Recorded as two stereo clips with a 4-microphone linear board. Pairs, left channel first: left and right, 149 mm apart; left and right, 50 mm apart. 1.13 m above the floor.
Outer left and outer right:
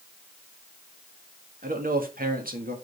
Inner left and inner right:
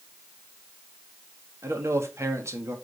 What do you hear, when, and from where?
1.6 s a man speaking: 75° right (ahead or behind), 1.8 m